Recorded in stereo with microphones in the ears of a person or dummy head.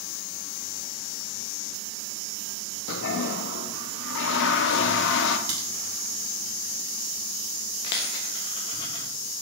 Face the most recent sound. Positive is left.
turn(degrees=20)  # may be behind; listen again after turning